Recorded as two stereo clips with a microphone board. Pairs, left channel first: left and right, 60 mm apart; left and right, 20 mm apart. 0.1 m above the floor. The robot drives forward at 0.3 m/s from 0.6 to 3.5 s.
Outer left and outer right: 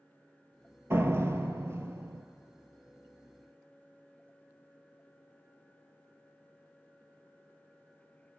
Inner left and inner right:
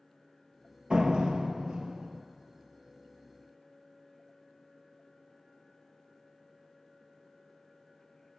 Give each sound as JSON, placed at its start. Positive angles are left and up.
{"t": 0.9, "sound": "a door slam", "side_deg": -50, "distance_m": 1.3}